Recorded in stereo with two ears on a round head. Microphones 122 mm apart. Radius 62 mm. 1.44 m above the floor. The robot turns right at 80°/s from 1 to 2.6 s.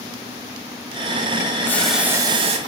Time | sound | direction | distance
1.6 | boiling | 160° left | 2.5 m